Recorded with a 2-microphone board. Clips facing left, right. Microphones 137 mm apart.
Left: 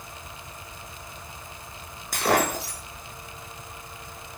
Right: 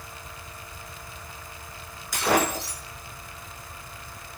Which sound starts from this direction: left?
Breaking glass, at 2.1 s.